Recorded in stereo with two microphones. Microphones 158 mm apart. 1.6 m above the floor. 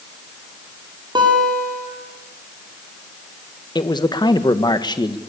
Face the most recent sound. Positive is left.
turn(degrees=25)  # may be behind; listen again after turning